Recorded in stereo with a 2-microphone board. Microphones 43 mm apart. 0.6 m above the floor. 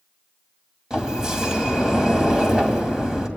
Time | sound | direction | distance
0.9 | a sliding door | 15° right (ahead or behind) | 2 m